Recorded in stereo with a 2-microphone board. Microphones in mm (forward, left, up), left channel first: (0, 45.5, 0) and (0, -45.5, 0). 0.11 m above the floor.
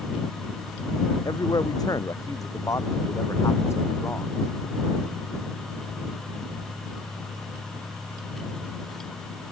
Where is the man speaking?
50° left (ahead or behind); by 4.3 s 25° left (ahead or behind).